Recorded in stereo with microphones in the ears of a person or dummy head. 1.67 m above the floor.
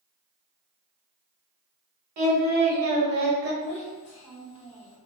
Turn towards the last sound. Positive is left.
turn(degrees=35)  # may be behind; listen again after turning